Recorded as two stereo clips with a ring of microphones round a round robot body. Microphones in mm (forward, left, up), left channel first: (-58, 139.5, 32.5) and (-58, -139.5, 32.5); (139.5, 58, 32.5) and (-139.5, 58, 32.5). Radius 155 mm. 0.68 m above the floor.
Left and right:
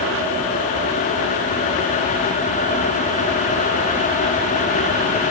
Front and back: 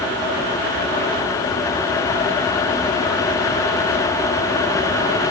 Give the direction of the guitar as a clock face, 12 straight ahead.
I don't hear a guitar.